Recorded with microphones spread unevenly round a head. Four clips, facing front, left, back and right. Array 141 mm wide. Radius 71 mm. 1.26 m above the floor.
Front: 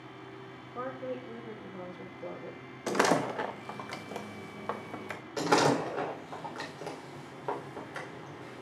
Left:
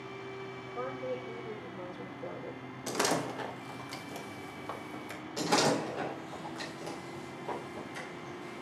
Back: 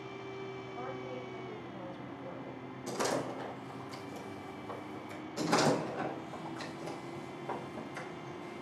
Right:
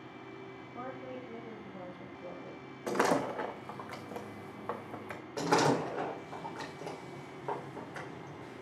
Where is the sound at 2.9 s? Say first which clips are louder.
Right 2 dB, front 7 dB; 10° right, 1.4 m.